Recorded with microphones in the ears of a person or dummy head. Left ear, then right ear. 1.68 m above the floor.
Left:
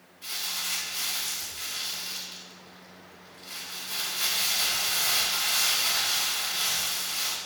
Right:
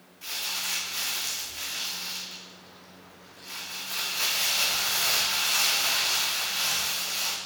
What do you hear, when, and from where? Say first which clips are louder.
0.2 s crumpling: right 1 dB; 55° right (ahead or behind), 2.5 m